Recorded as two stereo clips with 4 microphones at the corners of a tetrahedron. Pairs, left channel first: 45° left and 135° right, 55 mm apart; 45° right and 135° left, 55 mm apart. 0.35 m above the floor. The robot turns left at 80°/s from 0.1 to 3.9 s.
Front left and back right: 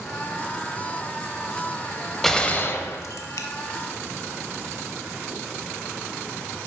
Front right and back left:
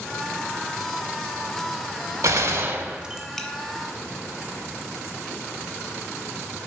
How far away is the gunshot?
About 0.6 m.